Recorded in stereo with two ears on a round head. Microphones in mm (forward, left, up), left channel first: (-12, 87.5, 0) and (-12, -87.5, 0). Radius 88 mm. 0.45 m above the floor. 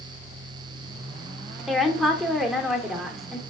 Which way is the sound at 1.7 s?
Centre (ahead or behind).